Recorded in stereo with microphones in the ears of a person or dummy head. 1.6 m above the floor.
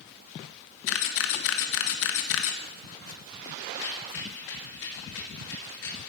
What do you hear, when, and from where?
0.9 s a camera shutter: 65° left (ahead or behind), 1.4 m
3.7 s a rattle: 70° left (ahead or behind), 3 m